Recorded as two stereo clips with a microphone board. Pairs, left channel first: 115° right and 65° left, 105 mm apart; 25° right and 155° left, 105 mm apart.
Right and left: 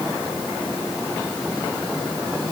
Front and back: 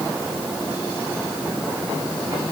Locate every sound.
Only background noise.